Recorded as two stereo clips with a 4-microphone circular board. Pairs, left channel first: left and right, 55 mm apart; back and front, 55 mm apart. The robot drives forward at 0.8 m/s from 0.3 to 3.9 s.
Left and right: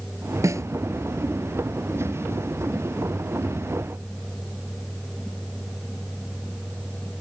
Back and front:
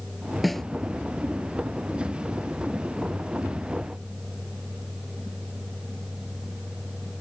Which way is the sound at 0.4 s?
90° right.